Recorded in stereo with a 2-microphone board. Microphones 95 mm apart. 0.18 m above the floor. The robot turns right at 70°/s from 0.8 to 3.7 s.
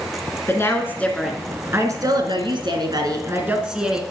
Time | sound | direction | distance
0.5 | a woman speaking | 150° left | 2 m